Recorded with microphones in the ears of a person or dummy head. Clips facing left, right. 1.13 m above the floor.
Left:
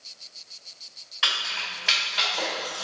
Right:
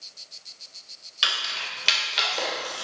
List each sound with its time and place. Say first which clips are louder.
1.2 s keys jangling: even; 50° right (ahead or behind), 1.4 m; by 2.9 s 15° right (ahead or behind), 0.9 m